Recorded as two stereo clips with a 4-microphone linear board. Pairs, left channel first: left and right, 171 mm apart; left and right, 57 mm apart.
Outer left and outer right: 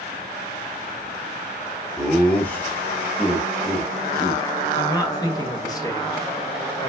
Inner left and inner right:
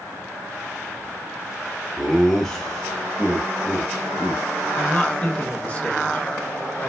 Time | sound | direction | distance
2.0 | laughter | 5° left (ahead or behind) | 0.9 m
4.8 | a man speaking | 20° left (ahead or behind) | 0.8 m